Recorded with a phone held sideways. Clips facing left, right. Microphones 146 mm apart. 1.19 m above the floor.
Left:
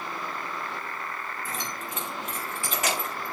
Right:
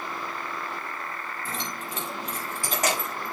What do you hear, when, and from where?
1.4 s keys jangling: 25° right (ahead or behind), 5.5 m; by 3.3 s 45° right (ahead or behind), 5 m